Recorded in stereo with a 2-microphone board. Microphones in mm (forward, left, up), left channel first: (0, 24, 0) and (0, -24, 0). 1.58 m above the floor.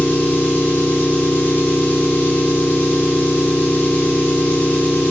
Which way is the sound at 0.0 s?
40° left (ahead or behind).